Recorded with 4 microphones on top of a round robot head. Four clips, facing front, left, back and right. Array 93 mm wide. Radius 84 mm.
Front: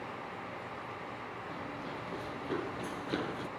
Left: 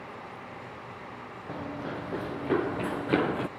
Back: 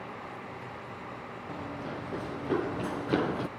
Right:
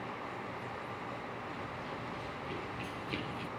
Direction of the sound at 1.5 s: 105° left.